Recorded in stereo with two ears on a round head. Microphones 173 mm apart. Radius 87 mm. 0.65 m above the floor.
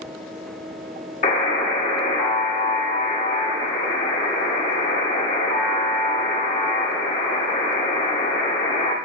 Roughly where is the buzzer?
Left.